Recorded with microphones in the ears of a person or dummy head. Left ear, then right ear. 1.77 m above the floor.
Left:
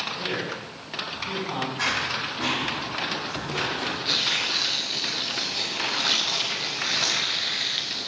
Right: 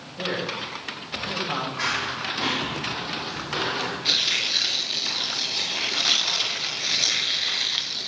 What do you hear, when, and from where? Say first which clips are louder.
0.2 s a man speaking: right 1 dB; 50° right (ahead or behind), 7.5 m
1.8 s running footsteps: left 3 dB; 5° right (ahead or behind), 6 m; by 4.0 s 25° right (ahead or behind), 5 m
4.0 s tearing paper: right 2 dB; 15° right (ahead or behind), 0.9 m